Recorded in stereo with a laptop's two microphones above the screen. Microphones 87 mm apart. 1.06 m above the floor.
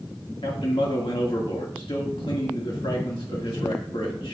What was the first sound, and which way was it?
A man speaking, 75° left (ahead or behind).